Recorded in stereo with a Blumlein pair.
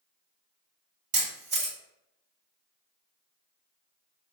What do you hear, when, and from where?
1.1 s a camera shutter: 40° right, 1.6 m